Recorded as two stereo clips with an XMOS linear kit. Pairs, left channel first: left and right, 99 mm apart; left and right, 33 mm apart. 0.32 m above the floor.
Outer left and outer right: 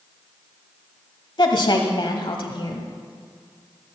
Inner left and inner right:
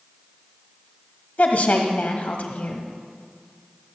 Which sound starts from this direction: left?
A woman speaking, at 1.4 s.